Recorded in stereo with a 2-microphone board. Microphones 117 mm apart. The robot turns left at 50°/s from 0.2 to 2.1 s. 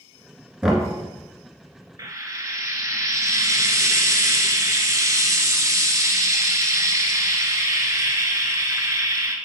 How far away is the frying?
About 0.8 m.